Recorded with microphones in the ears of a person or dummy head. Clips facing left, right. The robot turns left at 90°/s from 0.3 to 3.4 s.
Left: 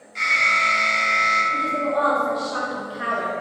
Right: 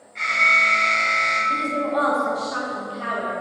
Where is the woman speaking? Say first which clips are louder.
Right 1 dB; 60° right, 1.8 m; by 3.3 s 135° left, 1.8 m.